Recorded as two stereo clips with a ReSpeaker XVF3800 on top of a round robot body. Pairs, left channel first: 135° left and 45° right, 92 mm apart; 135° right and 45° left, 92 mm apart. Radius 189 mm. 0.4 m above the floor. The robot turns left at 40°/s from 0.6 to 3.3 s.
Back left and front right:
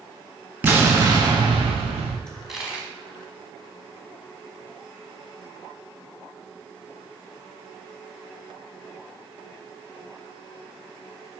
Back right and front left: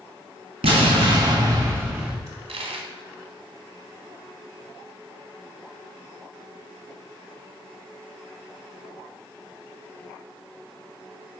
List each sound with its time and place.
0.6 s an explosion: 25° left, 1.2 m; by 2.2 s 35° right, 1.2 m
2.3 s a dropped coin: 50° left, 1.2 m; by 2.9 s 25° left, 1.2 m